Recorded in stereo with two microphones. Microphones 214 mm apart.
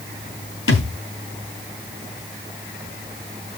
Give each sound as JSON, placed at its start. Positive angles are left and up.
{"t": 0.7, "sound": "a thud", "side_deg": 75, "distance_m": 2.5}